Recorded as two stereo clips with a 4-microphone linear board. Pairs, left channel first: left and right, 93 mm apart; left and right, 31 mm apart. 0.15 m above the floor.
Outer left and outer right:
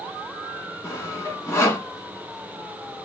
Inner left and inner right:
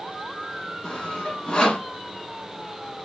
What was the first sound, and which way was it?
Sawing, 30° left (ahead or behind).